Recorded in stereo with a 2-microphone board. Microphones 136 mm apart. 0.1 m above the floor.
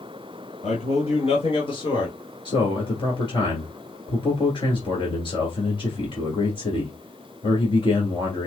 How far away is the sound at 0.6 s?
About 1.8 m.